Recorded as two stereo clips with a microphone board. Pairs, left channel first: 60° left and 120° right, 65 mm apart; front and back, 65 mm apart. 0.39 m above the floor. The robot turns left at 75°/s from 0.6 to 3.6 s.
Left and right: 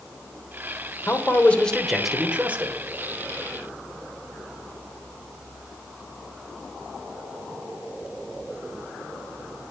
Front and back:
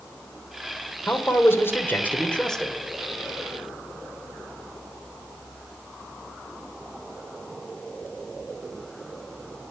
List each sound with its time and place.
1.1 s a man speaking: 35° left, 1.2 m; by 2.8 s 90° right, 1.2 m